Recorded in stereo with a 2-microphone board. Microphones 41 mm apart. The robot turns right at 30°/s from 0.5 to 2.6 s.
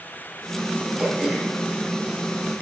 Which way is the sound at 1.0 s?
5° right (ahead or behind).